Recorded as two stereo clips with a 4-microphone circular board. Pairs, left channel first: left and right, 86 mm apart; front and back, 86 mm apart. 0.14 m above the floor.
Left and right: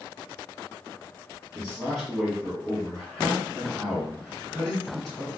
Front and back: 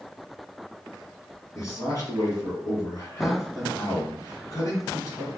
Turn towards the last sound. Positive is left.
turn(degrees=0)